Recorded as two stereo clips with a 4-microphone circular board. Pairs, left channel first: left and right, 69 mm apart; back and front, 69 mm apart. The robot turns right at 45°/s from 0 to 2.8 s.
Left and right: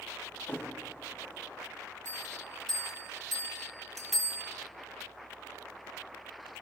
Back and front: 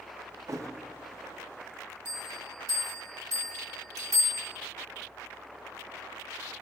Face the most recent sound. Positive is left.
turn(degrees=175)